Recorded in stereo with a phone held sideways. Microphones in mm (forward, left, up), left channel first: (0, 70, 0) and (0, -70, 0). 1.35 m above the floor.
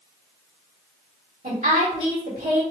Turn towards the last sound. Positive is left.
turn(degrees=-80)